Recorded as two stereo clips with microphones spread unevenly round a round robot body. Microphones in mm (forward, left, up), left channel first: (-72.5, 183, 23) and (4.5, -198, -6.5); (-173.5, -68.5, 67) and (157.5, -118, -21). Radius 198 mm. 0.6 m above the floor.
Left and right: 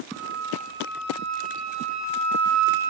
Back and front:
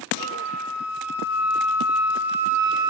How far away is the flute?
About 7.5 m.